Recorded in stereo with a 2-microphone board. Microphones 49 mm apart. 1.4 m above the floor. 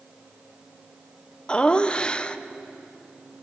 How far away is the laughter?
About 0.9 m.